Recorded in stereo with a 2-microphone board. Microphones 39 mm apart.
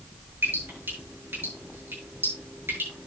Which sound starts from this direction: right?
Dripping, at 0.4 s.